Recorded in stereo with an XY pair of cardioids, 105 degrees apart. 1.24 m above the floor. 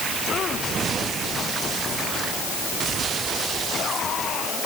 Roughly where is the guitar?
I don't hear a guitar.